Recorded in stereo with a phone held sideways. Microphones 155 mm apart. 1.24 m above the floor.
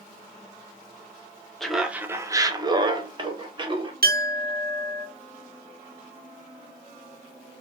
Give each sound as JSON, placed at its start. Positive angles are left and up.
{"t": 1.6, "sound": "laughter", "side_deg": 0, "distance_m": 0.6}
{"t": 4.0, "sound": "a clink", "side_deg": -75, "distance_m": 0.9}